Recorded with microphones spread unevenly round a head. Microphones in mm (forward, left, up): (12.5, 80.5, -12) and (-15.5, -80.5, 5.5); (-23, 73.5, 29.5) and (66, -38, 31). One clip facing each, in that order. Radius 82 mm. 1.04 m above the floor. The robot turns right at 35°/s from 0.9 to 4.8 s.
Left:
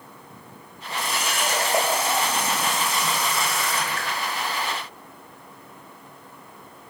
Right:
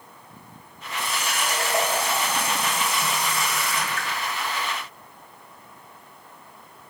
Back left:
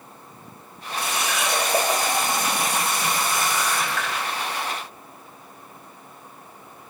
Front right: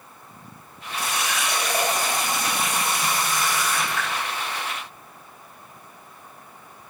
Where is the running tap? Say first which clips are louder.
Left 2 dB, back left 1 dB; 130° left, 3.5 m; by 4.1 s 120° right, 3.5 m.